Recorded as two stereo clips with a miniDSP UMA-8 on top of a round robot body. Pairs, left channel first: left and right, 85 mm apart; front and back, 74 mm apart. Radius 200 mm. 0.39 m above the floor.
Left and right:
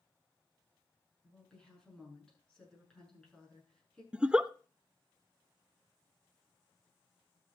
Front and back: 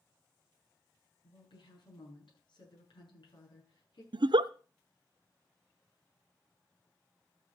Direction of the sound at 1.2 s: 10° left.